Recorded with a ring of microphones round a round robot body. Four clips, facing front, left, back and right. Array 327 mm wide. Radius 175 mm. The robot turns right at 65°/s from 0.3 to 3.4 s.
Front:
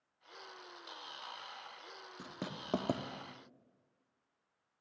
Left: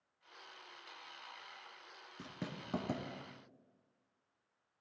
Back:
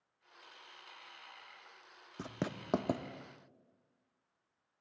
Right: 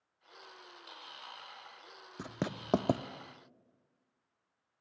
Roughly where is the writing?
Behind right.